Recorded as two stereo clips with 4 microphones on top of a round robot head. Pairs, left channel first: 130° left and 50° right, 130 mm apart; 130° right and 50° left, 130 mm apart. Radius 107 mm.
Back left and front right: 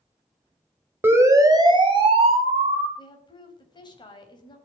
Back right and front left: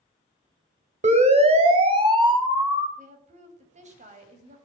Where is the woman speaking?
75° left, 4 m.